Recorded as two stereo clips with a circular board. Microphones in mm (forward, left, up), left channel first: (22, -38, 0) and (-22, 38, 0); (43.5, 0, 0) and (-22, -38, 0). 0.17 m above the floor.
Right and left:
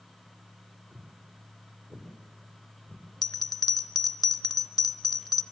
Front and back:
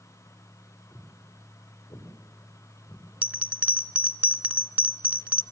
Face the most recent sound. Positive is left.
turn(degrees=-85)